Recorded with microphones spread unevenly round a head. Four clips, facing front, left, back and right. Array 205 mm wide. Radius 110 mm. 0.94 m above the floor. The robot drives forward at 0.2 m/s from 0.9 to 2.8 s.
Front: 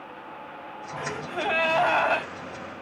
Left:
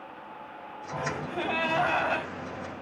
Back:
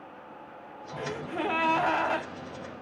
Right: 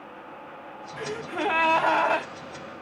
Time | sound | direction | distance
1.0 | a gasp | 115° right | 1.6 m